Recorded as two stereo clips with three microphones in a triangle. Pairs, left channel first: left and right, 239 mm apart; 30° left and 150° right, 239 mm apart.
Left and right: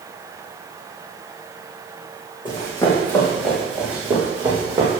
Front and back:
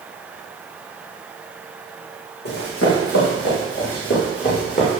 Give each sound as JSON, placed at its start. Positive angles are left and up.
{"t": 2.5, "sound": "running footsteps", "azimuth_deg": 20, "distance_m": 4.5}